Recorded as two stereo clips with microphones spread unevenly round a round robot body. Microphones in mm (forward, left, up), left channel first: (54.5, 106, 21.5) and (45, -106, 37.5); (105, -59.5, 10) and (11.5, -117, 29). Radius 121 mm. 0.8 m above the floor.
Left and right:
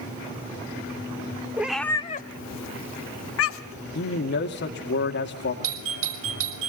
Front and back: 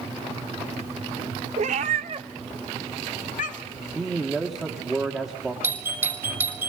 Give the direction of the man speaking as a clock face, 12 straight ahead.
8 o'clock.